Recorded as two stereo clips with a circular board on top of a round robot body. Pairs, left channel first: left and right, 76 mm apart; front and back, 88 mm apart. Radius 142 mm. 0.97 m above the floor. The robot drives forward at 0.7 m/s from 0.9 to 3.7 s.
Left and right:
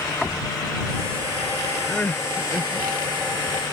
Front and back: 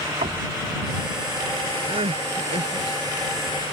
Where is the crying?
165° left; by 3.0 s 170° left.